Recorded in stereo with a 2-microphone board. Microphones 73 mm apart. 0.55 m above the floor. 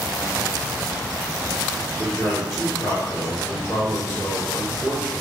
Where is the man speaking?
30° left (ahead or behind), 1.4 m.